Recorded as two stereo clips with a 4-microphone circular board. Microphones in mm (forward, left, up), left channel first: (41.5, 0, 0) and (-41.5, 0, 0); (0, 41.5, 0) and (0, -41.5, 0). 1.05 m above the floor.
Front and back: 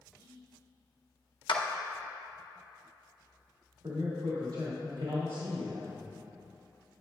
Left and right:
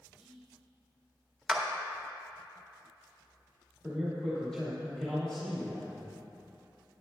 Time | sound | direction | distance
0.2 | whispering | straight ahead | 1.3 m
1.5 | a clap | 5° right | 0.7 m
3.8 | a man speaking | 175° left | 1.8 m